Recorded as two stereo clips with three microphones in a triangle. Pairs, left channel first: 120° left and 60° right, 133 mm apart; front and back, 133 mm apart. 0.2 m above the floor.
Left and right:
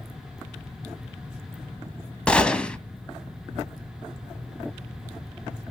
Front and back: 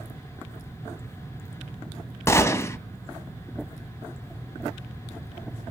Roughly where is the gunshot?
Ahead left.